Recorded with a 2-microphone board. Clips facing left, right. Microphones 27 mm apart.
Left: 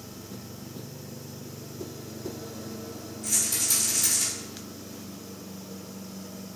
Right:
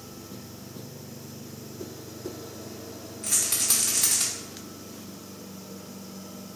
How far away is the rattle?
About 1.0 m.